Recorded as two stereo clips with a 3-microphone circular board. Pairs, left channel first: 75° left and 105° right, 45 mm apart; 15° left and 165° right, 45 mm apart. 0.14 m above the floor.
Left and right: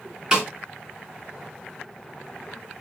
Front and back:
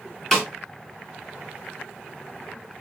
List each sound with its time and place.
0.3 s a snare drum: 55° right, 1.6 m